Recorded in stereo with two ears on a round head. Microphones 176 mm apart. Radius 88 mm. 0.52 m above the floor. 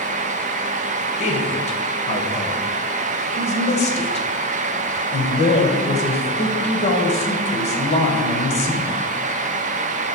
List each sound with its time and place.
1.2 s a man speaking: 35° left (ahead or behind), 2 m